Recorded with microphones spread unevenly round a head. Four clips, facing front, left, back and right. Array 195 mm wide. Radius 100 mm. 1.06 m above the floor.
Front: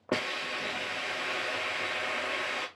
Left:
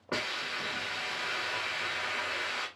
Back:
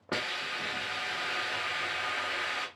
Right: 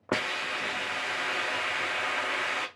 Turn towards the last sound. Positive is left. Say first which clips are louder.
# right 5 dB, front 3 dB
turn(degrees=-75)